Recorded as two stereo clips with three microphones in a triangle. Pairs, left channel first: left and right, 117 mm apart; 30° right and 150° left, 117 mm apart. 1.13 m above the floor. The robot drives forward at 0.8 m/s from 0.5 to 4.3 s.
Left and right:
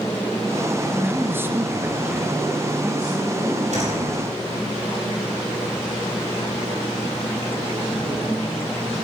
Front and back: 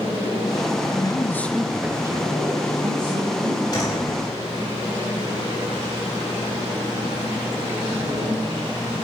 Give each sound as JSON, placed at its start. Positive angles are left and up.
{"t": 0.9, "sound": "a man speaking", "azimuth_deg": -25, "distance_m": 0.8}
{"t": 3.7, "sound": "a door slam", "azimuth_deg": -85, "distance_m": 5.0}